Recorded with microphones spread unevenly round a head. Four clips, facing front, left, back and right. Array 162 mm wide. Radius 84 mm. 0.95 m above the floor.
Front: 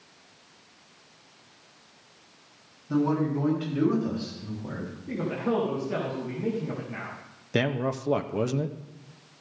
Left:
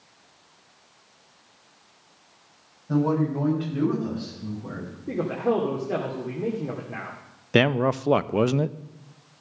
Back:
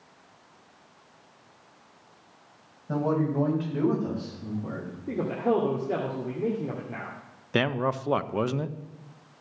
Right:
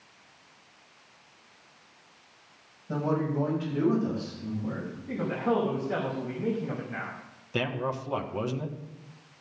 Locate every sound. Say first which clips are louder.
2.9 s a man speaking: left 5 dB, front 1 dB; 160° left, 8 m; by 5.0 s 170° left, 10 m
5.1 s a man speaking: left 4 dB, back 3 dB; 130° left, 2.5 m
7.5 s a man speaking: left 10 dB, back 1 dB; 85° left, 0.6 m